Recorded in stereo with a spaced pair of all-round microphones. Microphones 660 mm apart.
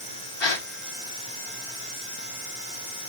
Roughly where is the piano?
I don't hear a piano.